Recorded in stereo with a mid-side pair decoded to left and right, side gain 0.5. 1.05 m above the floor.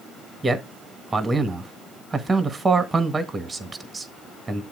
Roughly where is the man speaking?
Ahead right.